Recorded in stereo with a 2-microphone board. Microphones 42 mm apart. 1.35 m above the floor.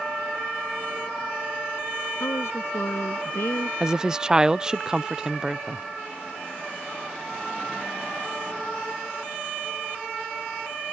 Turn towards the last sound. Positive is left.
turn(degrees=-15)  # may be behind; listen again after turning